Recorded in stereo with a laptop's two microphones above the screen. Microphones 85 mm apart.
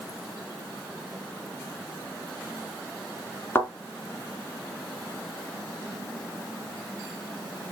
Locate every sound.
3.5 s a thud: 25° left (ahead or behind), 2.5 m